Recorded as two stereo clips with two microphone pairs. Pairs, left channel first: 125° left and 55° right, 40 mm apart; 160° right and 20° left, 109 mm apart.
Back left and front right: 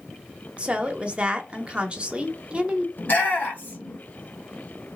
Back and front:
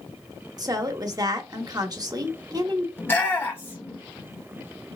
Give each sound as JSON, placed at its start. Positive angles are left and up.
{"t": 0.6, "sound": "a woman speaking", "azimuth_deg": -5, "distance_m": 0.8}
{"t": 3.0, "sound": "a shout", "azimuth_deg": 135, "distance_m": 1.6}